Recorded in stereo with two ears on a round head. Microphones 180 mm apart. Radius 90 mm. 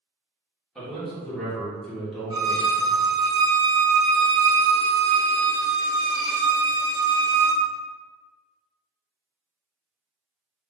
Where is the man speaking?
Centre (ahead or behind), 1.1 m.